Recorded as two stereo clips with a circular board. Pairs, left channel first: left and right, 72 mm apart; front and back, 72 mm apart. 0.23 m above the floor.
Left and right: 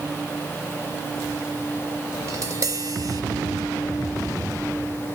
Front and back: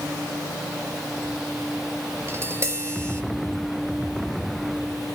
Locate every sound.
2.3 s tapping: 130° right, 3.5 m